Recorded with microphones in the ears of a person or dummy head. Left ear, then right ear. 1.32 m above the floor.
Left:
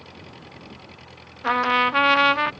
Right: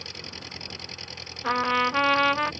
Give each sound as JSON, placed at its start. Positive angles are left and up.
{"t": 0.0, "sound": "an engine running", "side_deg": -80}
{"t": 1.4, "sound": "a trumpet", "side_deg": 15}